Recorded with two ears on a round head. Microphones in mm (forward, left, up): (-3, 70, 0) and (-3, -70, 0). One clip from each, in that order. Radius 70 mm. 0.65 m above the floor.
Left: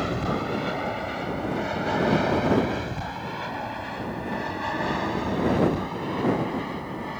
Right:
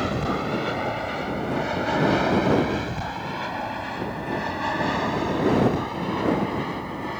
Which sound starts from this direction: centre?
An aircraft, at 0.0 s.